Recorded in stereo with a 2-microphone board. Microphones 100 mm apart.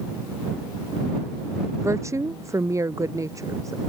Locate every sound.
1.8 s a woman speaking: 30° right (ahead or behind); by 3.9 s 35° right (ahead or behind)